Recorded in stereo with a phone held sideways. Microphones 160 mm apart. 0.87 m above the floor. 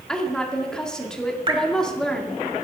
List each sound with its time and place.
0.1 s a woman speaking: 5° left (ahead or behind), 1.8 m
1.5 s dripping: 35° right (ahead or behind), 1.8 m